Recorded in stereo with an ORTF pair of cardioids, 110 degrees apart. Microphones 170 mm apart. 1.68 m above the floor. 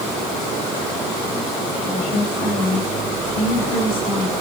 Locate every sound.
1.8 s a woman speaking: 65° left, 9.5 m; by 4.3 s 75° left, 7 m